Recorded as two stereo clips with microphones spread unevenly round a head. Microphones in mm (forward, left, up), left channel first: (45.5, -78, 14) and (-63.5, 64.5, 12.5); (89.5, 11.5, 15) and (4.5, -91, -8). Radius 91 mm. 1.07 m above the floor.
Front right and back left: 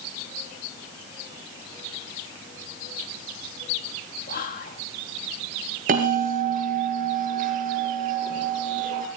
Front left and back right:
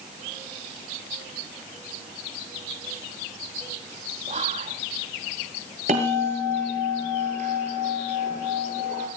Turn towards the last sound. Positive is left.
turn(degrees=175)